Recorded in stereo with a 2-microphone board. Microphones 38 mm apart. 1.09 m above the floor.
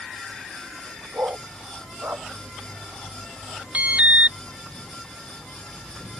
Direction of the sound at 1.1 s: 60° right (ahead or behind).